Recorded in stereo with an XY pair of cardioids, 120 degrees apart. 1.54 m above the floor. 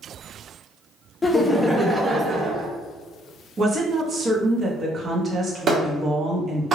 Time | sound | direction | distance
1.2 | laughter | 15° left | 0.7 m
3.6 | a woman speaking | 30° right | 0.9 m
5.7 | a clap | 45° right | 1.3 m